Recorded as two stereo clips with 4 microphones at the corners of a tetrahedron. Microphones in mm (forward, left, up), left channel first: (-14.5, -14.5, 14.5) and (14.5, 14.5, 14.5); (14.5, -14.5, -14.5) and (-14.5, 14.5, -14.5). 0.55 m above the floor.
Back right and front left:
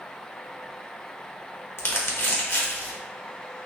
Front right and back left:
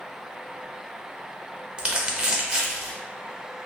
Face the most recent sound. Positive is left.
turn(degrees=-155)